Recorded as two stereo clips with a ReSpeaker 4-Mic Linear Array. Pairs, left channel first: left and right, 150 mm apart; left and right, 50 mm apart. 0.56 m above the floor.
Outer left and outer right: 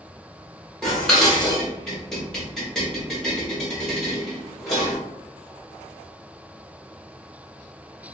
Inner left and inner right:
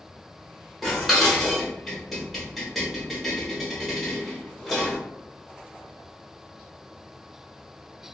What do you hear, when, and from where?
0.8 s dishes clattering: 5° left (ahead or behind), 1.0 m